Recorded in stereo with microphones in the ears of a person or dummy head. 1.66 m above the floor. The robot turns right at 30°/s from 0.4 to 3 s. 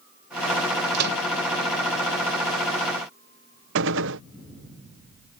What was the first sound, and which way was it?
A microwave, 60° right (ahead or behind).